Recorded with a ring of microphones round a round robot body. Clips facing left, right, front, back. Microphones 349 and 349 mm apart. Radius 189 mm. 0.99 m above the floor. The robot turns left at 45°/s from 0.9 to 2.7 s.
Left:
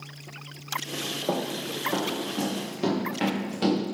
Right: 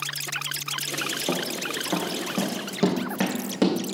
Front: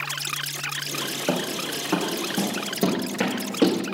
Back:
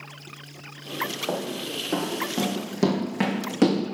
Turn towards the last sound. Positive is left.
turn(degrees=-110)